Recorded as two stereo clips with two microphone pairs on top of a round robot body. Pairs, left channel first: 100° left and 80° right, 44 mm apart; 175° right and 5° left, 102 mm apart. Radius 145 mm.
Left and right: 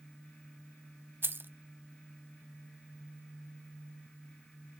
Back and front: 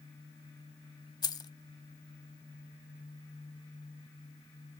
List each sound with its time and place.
1.2 s keys jangling: 125° right, 0.8 m